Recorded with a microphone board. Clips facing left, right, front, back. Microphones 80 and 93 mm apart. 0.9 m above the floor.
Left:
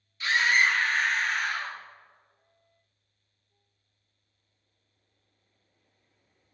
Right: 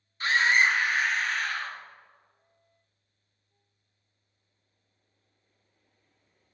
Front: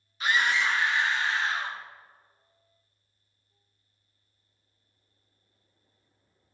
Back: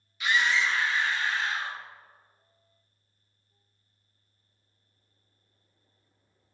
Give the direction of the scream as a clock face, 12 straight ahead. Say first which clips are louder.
Right 1 dB, even; 2 o'clock.